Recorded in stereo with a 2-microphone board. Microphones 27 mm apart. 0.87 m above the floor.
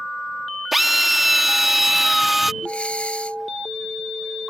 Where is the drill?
5° right (ahead or behind).